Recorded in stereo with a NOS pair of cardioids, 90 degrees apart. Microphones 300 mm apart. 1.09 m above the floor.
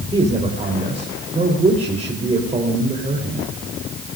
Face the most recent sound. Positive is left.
turn(degrees=-20)